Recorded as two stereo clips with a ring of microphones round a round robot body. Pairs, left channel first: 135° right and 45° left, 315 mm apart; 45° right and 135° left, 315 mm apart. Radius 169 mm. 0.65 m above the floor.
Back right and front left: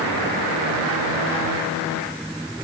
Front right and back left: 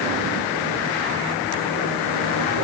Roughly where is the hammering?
No hammering in this recording.